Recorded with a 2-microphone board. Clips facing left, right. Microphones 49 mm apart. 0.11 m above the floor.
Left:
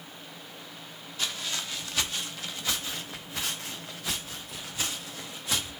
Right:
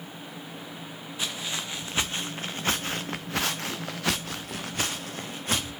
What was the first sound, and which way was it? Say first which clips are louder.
Footsteps: right 1 dB; 15° right (ahead or behind).